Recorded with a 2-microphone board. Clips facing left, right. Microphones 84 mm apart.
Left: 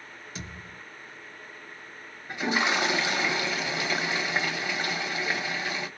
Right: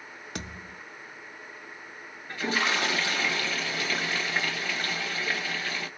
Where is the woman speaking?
No woman speaking in this recording.